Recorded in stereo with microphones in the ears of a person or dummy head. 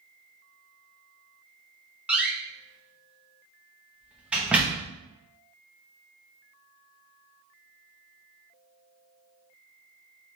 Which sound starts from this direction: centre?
A door slam, at 2.1 s.